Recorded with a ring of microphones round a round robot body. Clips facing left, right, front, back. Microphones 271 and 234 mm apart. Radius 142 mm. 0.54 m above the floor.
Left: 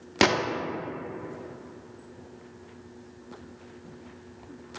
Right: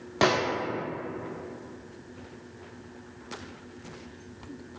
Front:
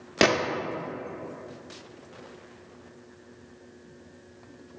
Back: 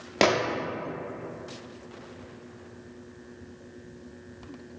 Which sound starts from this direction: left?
A gunshot, at 0.2 s.